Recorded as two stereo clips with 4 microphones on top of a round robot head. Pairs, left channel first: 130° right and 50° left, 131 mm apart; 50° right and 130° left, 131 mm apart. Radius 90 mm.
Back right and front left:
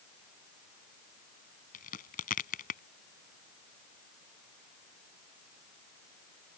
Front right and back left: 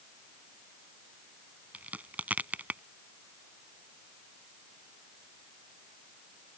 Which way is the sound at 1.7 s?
150° right.